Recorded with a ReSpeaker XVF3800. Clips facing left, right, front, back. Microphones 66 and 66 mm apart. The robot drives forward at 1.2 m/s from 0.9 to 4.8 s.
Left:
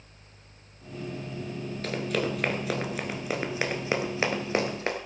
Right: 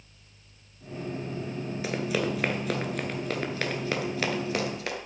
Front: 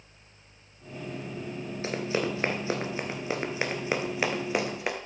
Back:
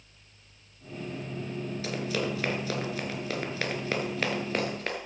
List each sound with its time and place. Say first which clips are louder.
1.8 s running footsteps: even, front 3 dB; 20° right, 1.7 m; by 5.0 s 65° left, 1.8 m